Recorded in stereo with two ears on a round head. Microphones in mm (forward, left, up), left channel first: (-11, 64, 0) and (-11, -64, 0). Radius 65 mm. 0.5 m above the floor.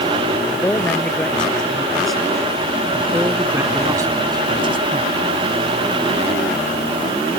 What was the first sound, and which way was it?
A man speaking, 10° left (ahead or behind).